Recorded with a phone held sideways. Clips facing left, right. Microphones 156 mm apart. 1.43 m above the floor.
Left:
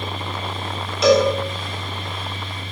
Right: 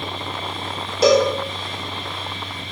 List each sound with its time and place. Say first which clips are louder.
0.0 s a fan: even; 35° right (ahead or behind), 5 m
1.0 s a cowbell: even; 35° right (ahead or behind), 4 m